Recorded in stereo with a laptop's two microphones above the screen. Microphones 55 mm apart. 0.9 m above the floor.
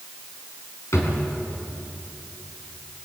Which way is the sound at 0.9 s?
65° left (ahead or behind).